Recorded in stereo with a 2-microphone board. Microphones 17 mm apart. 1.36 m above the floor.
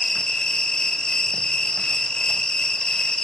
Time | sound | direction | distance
0.0 | an insect | 50° left (ahead or behind) | 1.9 m